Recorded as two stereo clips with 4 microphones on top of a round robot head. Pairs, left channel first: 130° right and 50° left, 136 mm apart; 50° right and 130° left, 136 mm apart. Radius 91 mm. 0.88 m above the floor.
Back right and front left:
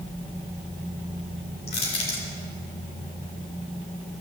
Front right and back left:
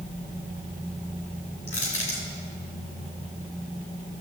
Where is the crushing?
85° right, 3 m.